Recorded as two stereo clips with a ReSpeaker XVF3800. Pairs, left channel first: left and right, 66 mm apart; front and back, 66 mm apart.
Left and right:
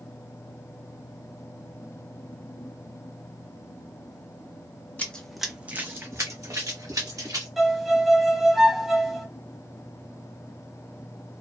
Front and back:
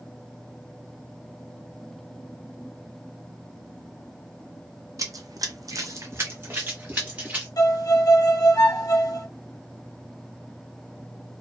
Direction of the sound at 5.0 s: 155° left.